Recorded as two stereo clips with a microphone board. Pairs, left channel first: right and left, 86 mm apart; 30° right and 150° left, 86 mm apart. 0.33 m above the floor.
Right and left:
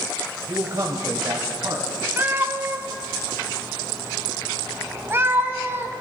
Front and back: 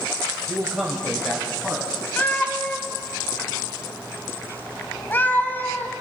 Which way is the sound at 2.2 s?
35° left.